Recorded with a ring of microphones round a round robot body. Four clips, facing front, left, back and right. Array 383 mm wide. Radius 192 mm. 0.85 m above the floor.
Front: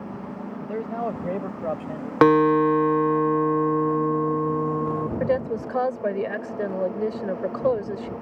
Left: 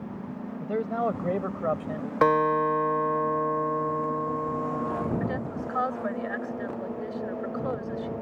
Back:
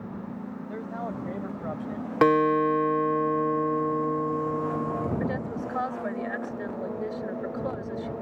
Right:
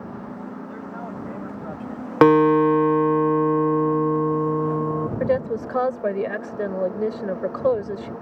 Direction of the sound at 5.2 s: 55° right.